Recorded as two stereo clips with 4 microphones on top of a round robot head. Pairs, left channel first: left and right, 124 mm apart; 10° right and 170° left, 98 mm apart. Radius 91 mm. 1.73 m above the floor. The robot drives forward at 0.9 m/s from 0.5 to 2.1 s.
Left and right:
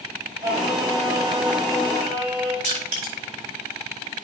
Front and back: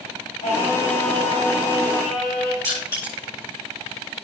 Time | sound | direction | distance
0.4 | singing | 25° right | 5.5 m
2.6 | crushing | 80° right | 5.5 m